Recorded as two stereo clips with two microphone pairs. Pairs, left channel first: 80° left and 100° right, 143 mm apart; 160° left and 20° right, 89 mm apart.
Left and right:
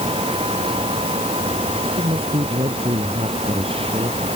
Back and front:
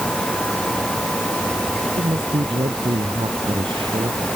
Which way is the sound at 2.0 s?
45° right.